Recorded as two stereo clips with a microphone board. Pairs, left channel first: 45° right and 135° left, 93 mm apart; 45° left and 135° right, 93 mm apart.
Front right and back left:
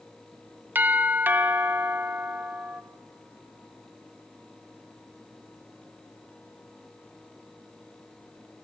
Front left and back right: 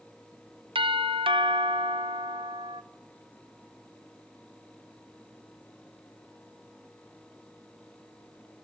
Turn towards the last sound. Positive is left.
turn(degrees=-155)